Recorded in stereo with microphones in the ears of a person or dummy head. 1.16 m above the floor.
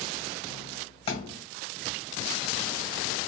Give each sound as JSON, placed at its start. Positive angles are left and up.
{"t": 1.1, "sound": "a thud", "side_deg": 25, "distance_m": 1.9}